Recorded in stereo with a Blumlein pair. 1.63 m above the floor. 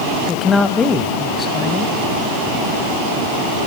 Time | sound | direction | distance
0.3 | a man speaking | 15° left | 1.5 m